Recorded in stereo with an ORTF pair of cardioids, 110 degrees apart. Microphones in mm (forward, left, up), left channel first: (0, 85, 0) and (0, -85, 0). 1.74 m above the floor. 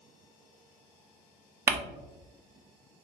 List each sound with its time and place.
1.7 s crumpling: 15° right, 0.5 m